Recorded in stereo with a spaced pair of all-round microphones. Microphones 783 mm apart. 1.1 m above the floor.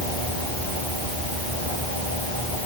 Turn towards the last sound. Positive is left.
No sound to turn to.